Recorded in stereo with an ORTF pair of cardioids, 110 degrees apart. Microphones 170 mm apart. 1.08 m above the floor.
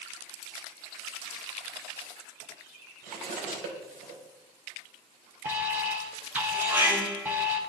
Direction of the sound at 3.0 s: 70° right.